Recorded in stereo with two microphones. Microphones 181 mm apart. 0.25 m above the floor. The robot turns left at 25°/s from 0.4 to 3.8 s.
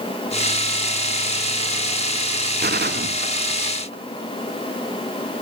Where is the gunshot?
65° right (ahead or behind), 0.9 m; by 4.0 s 70° right (ahead or behind), 0.9 m.